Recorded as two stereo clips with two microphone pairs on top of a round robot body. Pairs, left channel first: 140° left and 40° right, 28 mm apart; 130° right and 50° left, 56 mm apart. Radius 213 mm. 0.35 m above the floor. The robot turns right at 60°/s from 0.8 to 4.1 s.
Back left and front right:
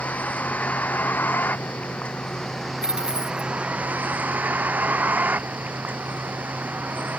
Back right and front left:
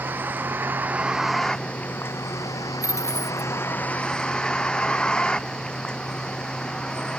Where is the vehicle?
110° left; by 7.2 s 55° right.